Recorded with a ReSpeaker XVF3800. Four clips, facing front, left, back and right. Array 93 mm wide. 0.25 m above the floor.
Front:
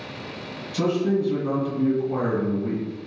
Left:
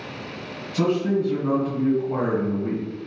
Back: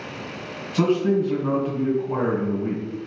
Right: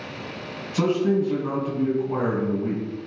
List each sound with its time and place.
0.7 s a man speaking: 170° right, 1.9 m